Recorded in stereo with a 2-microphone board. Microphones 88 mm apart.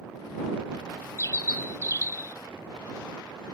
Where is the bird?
40° left (ahead or behind).